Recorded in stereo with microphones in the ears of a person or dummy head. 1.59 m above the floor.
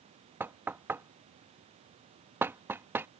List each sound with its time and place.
0.4 s knocking: 10° right (ahead or behind)